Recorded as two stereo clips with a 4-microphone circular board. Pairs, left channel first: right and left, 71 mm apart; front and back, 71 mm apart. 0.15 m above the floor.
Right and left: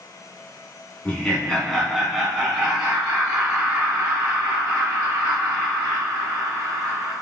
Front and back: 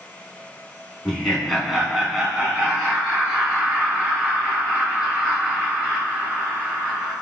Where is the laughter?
70° right, 1.6 m; by 7.1 s 120° left, 4 m.